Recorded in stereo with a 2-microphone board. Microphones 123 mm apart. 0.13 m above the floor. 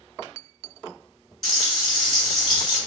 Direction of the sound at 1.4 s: Centre (ahead or behind).